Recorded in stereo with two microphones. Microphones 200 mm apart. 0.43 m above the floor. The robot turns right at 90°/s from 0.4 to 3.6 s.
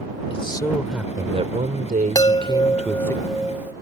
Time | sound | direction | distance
0.3 | a man speaking | 135° left | ?
2.1 | a chime | 20° left (ahead or behind) | ?